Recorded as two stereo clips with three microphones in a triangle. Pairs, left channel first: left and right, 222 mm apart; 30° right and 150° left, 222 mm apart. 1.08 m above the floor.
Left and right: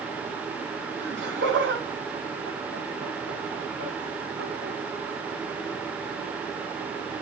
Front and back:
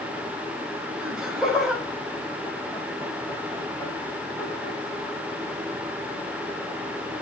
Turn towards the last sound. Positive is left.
turn(degrees=-105)